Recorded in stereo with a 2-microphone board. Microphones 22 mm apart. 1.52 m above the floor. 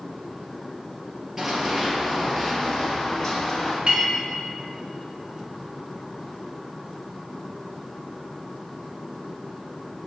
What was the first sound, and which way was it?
Running footsteps, 20° right (ahead or behind).